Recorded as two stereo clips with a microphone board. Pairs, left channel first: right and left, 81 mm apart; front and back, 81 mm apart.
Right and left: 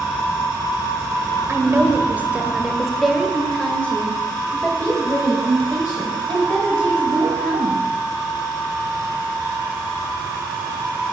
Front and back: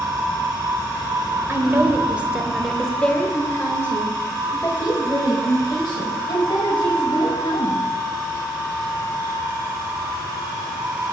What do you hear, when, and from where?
1.5 s a woman speaking: 135° left, 1.3 m; by 7.8 s 35° right, 3.5 m